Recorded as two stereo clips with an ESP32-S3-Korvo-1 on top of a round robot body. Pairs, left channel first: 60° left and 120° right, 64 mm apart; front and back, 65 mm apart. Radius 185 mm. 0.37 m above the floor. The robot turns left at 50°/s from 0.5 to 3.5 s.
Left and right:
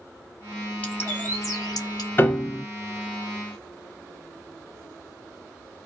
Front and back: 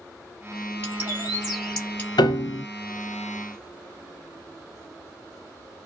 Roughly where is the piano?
Ahead.